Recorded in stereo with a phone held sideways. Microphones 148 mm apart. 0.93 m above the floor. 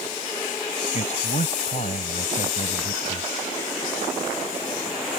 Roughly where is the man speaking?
Left.